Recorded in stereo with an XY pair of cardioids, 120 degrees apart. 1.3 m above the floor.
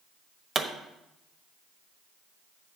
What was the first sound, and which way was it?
A pop, 30° right.